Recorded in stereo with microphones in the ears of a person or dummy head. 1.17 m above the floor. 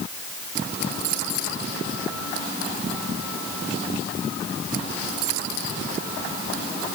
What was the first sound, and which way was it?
Only background noise.